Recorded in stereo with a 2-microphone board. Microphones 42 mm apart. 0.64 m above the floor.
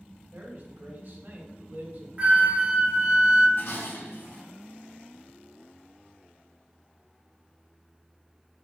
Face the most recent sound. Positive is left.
turn(degrees=65)  # may be behind; listen again after turning